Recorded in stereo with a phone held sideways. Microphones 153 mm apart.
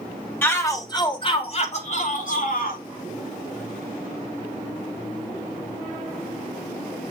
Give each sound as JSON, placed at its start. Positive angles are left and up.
{"t": 0.4, "sound": "a shout", "side_deg": 15, "distance_m": 3.0}